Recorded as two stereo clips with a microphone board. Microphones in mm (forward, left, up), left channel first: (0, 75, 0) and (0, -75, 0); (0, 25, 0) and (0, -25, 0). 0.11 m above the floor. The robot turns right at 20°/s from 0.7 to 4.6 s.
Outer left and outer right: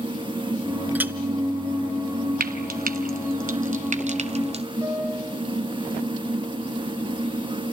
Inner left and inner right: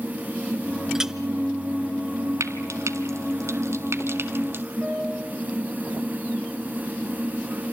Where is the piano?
20° right (ahead or behind), 7.5 m.